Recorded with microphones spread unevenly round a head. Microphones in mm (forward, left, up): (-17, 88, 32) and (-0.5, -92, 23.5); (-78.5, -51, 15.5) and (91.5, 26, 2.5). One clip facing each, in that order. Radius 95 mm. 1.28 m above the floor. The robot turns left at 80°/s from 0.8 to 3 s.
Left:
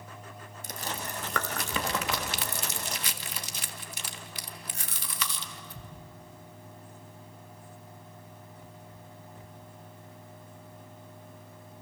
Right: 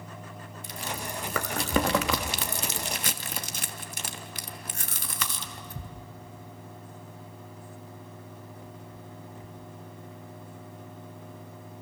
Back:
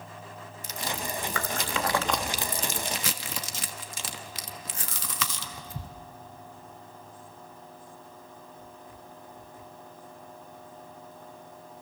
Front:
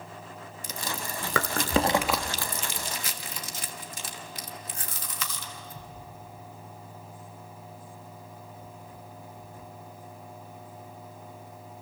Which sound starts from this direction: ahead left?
Chewing, at 0.6 s.